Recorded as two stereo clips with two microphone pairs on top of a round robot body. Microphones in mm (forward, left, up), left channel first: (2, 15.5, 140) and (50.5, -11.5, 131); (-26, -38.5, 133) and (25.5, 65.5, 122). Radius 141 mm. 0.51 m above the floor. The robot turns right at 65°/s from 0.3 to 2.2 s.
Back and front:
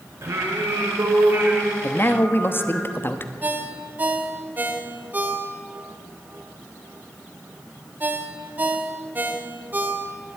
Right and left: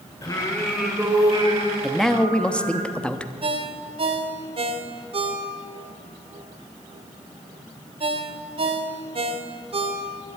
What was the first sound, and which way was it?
Singing, 55° right.